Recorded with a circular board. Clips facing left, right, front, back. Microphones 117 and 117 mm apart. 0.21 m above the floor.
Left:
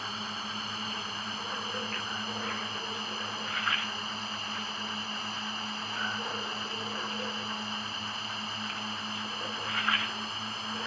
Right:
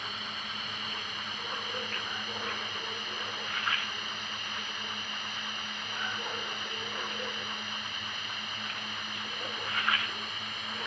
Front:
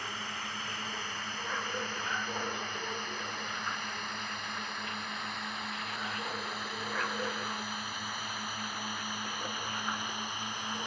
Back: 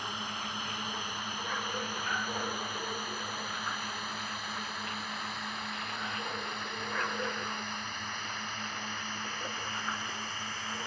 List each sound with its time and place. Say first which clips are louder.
0.0 s a drone: left 3 dB, back 2 dB; 120° left; by 10.9 s 60° left